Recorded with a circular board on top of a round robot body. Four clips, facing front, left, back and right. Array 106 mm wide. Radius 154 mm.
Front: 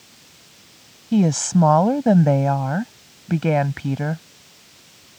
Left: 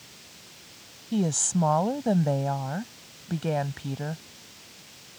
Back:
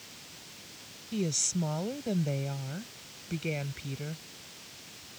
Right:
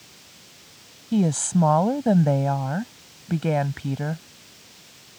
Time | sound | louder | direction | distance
1.1 | a woman speaking | right 5 dB, front 15 dB | 10° right | ?